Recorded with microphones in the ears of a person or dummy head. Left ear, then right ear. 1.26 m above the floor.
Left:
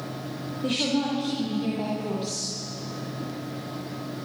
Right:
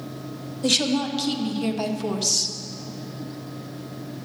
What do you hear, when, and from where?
0.6 s a woman speaking: 85° right, 2 m; by 2.6 s 45° right (ahead or behind), 1.6 m